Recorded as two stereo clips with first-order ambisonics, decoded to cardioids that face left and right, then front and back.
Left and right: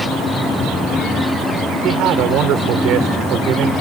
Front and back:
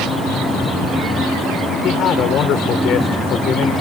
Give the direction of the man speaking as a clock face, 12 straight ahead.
2 o'clock.